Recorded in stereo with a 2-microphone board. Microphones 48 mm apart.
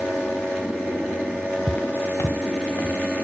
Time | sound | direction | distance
1.7 | footsteps | 15° left (ahead or behind) | 0.5 m